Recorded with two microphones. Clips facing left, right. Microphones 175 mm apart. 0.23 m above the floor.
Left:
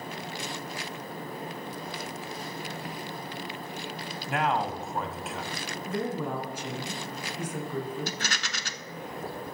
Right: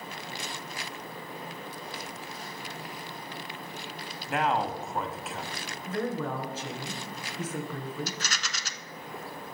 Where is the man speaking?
Centre (ahead or behind), 1.1 m.